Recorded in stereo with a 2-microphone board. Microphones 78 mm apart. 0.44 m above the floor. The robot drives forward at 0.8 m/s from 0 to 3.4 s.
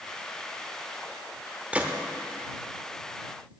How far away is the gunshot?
About 0.6 m.